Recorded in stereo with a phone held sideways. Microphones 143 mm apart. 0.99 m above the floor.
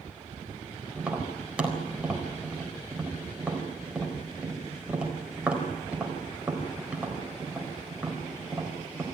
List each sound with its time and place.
1.0 s tapping: 10° right (ahead or behind), 4 m